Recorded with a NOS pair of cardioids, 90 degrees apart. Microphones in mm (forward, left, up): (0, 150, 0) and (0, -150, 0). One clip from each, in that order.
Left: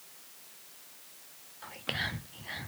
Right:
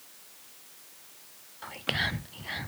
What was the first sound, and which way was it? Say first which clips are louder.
Whispering: right 5 dB; 15° right.